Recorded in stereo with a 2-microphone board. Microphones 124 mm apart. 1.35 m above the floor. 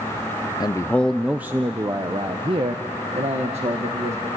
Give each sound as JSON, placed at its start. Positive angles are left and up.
{"t": 0.6, "sound": "a man speaking", "side_deg": 30, "distance_m": 0.5}